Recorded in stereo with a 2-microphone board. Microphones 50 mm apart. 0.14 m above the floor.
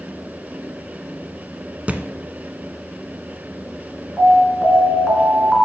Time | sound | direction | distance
1.9 | a thud | 30° right (ahead or behind) | 0.6 m
4.2 | an alarm | centre (ahead or behind) | 2 m